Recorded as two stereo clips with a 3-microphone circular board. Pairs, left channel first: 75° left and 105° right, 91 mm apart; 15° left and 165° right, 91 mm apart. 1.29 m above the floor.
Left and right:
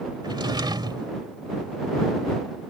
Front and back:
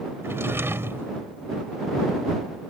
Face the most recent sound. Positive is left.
turn(degrees=-110)